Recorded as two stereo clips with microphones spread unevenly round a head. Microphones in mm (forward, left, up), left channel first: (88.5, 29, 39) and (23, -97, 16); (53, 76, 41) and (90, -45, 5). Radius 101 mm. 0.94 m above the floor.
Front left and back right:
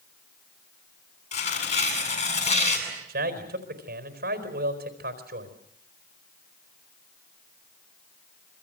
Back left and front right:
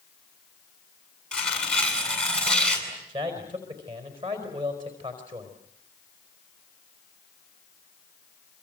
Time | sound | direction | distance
1.3 | tearing paper | 25° left | 7.5 m
3.1 | a man speaking | 130° right | 4.5 m